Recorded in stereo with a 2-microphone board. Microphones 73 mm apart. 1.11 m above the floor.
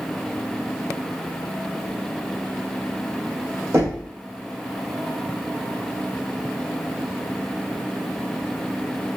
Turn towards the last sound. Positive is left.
turn(degrees=-45)  # may be behind; listen again after turning